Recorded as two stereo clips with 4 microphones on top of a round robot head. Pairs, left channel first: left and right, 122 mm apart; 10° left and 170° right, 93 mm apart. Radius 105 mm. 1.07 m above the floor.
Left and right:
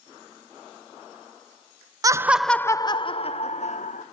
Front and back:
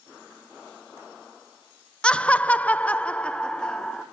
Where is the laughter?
60° right, 0.7 m; by 4.0 s 90° left, 1.4 m.